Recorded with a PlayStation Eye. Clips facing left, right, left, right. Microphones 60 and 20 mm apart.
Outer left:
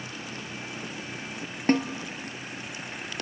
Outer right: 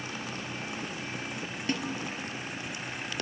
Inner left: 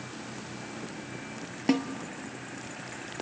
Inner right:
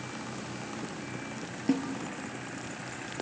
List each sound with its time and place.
1.7 s a snare drum: 45° left (ahead or behind), 1.1 m